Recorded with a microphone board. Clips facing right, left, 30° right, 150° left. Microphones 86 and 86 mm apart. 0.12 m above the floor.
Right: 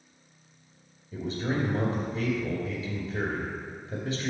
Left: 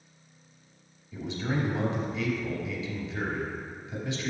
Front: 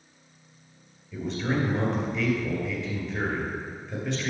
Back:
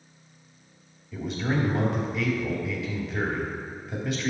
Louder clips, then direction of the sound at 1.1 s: Right 1 dB, even; 125° right.